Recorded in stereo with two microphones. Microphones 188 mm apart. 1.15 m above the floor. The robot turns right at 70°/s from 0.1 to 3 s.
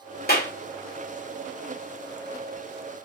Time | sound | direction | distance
0.3 | a clap | 55° left (ahead or behind) | 1.0 m